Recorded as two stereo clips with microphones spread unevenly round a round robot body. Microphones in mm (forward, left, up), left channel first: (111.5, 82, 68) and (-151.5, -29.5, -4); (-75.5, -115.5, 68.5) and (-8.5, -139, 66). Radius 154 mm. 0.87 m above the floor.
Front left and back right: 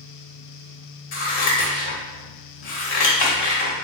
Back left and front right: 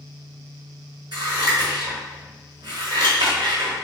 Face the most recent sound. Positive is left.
turn(degrees=5)